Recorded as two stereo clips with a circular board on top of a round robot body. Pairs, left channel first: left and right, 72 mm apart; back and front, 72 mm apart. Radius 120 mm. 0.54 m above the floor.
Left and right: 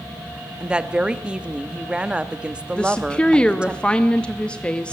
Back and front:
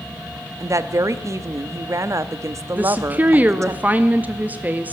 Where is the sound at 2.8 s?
30° left, 0.8 m.